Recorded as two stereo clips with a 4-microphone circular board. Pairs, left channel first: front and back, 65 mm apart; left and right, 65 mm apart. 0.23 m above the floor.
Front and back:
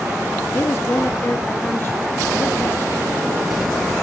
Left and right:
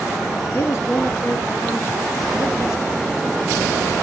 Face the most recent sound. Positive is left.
turn(degrees=50)